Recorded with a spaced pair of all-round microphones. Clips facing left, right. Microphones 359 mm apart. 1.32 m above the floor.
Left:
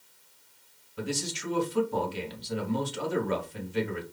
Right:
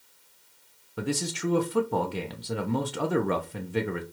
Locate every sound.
1.0 s a man speaking: 75° right (ahead or behind), 0.7 m